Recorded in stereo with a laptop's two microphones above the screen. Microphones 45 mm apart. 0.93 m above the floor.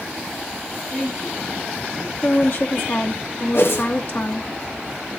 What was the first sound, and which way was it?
A woman speaking, 10° left (ahead or behind).